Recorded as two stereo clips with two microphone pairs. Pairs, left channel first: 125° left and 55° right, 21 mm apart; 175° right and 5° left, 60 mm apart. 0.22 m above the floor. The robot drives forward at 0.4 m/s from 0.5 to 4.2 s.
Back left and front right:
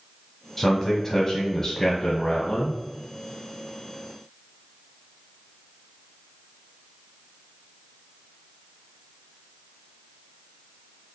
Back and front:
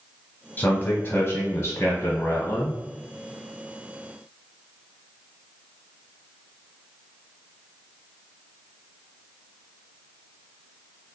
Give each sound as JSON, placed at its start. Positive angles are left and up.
{"t": 0.6, "sound": "a man speaking", "azimuth_deg": -175, "distance_m": 1.1}